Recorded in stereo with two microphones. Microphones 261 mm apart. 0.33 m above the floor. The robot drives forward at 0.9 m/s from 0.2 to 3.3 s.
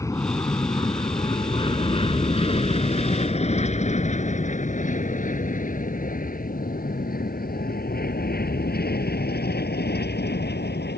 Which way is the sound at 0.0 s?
10° left (ahead or behind).